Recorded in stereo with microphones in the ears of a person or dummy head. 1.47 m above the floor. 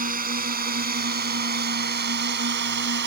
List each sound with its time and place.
0.0 s a drone: 45° right (ahead or behind); by 3.1 s 60° right (ahead or behind)